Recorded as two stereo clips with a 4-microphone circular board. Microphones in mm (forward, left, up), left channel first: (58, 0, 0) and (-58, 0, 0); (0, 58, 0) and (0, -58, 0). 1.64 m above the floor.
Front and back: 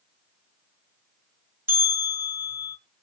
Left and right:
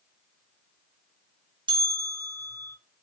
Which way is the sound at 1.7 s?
115° right.